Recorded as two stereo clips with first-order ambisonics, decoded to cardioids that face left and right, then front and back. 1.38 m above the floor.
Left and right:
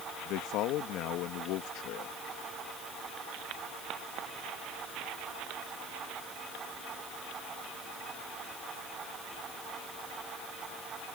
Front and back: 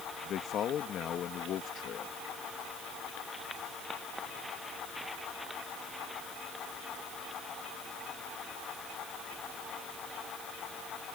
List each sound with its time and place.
0.2 s a man speaking: 55° left